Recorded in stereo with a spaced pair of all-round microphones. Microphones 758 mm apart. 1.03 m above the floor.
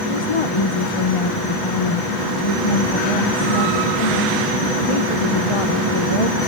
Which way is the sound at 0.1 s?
45° left (ahead or behind).